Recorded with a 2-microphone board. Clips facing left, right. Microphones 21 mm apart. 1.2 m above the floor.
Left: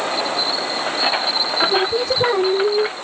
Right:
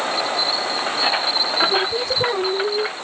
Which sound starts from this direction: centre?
Singing, at 1.6 s.